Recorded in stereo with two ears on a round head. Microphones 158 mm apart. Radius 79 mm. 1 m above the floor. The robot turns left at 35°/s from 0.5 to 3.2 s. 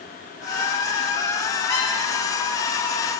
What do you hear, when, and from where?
1.7 s a squeak: 15° left (ahead or behind), 4 m; by 1.9 s 25° left (ahead or behind), 4 m